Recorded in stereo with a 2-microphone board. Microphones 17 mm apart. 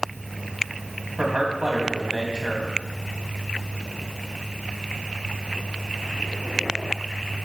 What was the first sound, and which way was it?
A man speaking, 55° right (ahead or behind).